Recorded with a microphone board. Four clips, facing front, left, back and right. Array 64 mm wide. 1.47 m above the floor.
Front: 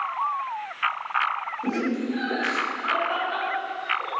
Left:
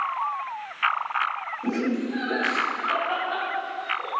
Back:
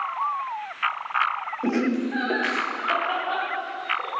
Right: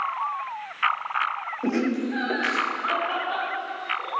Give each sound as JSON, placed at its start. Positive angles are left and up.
{"t": 1.6, "sound": "laughter", "azimuth_deg": -130, "distance_m": 1.0}